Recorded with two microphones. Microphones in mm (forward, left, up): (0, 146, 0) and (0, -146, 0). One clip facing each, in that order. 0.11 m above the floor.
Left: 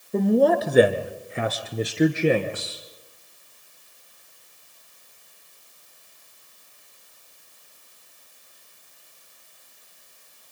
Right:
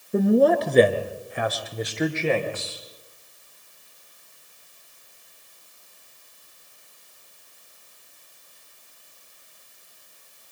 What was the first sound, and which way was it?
A man speaking, 10° right (ahead or behind).